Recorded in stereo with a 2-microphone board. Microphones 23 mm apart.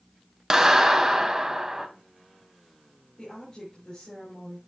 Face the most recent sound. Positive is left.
turn(degrees=30)  # may be behind; listen again after turning